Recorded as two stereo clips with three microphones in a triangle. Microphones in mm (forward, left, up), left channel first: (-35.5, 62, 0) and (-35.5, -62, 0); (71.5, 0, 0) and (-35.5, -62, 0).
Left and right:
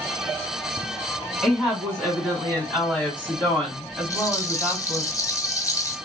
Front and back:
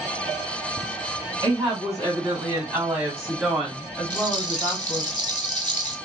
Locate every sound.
1.4 s a woman speaking: 170° left, 1.8 m; by 5.1 s 20° left, 1.4 m
4.1 s a rattle: 30° left, 0.5 m